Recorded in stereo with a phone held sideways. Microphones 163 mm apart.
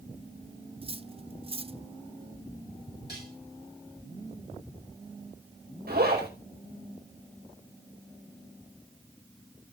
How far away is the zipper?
About 4.5 m.